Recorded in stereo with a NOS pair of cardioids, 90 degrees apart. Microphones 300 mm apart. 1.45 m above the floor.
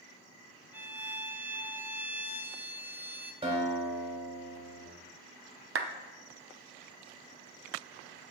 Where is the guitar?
20° right, 4 m.